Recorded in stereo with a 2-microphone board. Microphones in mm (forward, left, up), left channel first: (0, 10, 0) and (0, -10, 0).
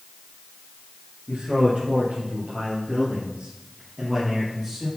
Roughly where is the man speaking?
Right.